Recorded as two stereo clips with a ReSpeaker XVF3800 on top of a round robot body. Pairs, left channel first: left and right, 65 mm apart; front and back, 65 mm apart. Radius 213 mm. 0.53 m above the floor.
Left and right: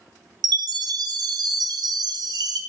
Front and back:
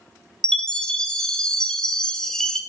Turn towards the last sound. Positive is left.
turn(degrees=-80)